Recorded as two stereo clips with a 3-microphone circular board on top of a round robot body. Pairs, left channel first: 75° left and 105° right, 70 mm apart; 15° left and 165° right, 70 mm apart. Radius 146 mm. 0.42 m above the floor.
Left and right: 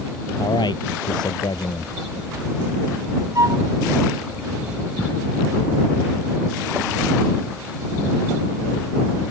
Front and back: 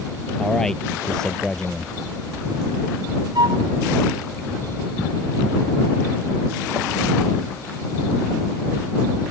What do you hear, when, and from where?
0.4 s a man speaking: 95° left
3.4 s a flute: 150° right